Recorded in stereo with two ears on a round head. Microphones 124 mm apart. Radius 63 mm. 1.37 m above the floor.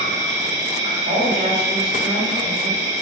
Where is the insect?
20° right (ahead or behind), 1.0 m.